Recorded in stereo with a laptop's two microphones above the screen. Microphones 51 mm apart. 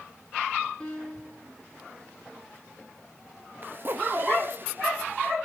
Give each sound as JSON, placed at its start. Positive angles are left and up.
{"t": 0.8, "sound": "a piano", "side_deg": 15, "distance_m": 2.5}
{"t": 3.6, "sound": "a zipper", "side_deg": -45, "distance_m": 0.7}